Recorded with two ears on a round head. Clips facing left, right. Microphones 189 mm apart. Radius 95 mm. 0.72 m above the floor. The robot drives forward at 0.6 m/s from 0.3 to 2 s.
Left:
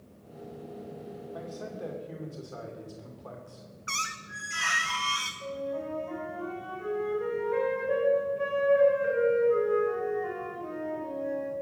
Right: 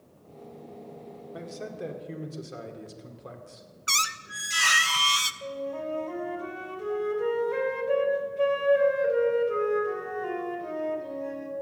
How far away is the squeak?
About 0.7 m.